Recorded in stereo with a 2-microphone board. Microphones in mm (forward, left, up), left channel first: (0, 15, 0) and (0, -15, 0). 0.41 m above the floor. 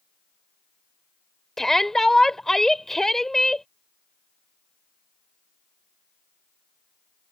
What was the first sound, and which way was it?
A shout, 15° left (ahead or behind).